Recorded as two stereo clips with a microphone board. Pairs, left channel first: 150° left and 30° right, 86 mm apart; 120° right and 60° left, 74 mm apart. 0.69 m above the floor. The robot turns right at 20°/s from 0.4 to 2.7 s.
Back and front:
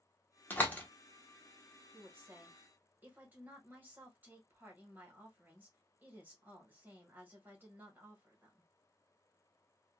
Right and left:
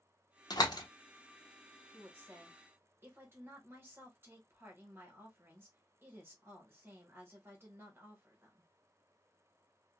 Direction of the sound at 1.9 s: 10° left.